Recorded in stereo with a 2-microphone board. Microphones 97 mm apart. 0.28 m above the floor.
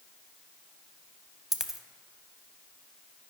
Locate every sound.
1.5 s a dropped coin: 5° right (ahead or behind), 0.5 m